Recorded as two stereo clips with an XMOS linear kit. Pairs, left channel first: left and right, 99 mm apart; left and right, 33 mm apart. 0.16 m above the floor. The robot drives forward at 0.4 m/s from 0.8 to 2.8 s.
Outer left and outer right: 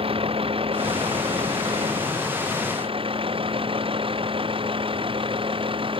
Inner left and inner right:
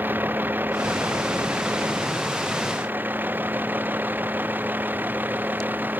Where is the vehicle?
70° right (ahead or behind); by 6.0 s 65° right (ahead or behind).